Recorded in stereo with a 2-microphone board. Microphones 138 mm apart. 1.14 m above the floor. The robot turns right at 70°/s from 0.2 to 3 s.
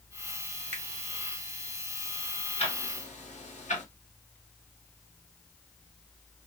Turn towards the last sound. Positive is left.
turn(degrees=60)  # may be behind; listen again after turning